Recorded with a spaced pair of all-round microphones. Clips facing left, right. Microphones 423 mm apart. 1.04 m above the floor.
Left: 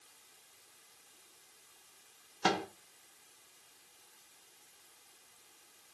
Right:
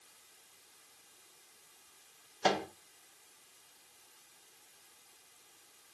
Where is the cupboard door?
No cupboard door in this recording.